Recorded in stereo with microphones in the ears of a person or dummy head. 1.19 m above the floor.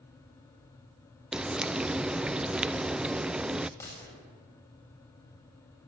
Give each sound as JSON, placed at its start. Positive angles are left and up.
{"t": 1.3, "sound": "frying", "side_deg": -5, "distance_m": 0.5}
{"t": 3.8, "sound": "a gunshot", "side_deg": 15, "distance_m": 7.0}